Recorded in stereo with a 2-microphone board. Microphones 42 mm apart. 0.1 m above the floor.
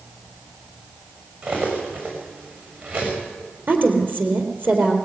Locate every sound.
1.4 s cutlery clinking: 50° right (ahead or behind), 6 m
3.7 s a woman speaking: 45° right (ahead or behind), 3 m